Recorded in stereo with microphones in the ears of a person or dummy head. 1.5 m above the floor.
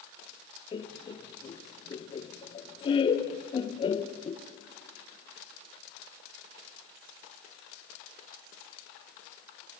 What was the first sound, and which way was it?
Laughter, 25° left (ahead or behind).